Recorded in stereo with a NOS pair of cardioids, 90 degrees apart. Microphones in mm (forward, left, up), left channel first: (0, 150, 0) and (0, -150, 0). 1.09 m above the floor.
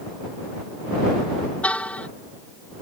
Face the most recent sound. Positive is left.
turn(degrees=5)